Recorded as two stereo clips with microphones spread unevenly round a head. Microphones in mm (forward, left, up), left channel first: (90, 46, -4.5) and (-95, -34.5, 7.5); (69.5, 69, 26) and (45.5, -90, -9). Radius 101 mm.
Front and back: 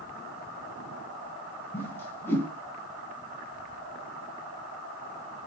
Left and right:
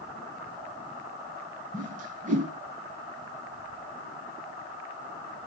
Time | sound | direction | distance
1.7 | a whoosh | 60° right | 2.5 m